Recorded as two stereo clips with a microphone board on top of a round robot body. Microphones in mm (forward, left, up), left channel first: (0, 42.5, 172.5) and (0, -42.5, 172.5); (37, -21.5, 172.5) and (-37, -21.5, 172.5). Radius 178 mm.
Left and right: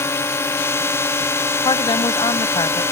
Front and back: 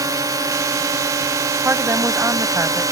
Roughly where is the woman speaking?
Behind left.